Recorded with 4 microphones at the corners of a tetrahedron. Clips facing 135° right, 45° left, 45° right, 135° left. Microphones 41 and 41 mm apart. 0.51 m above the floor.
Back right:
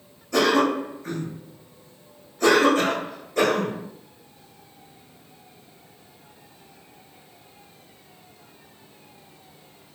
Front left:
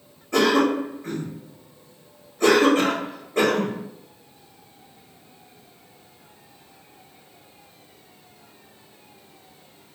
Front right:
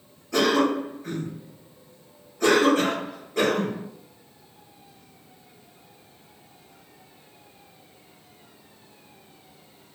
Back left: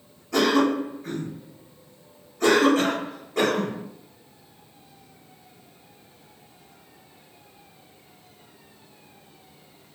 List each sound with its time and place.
0.3 s a cough: 55° left, 1.4 m